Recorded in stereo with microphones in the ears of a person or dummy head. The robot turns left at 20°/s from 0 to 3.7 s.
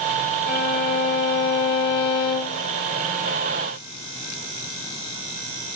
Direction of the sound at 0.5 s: 120° left.